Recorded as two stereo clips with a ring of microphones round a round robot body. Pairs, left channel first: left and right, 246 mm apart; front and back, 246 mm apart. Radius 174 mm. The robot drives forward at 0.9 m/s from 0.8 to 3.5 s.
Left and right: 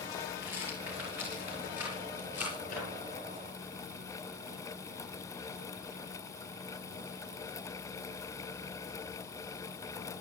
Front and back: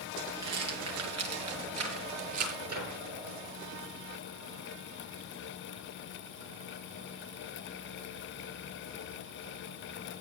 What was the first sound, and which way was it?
A rattle, 175° right.